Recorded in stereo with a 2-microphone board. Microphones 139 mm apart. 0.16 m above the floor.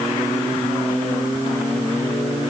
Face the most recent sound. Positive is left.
No sound to turn to.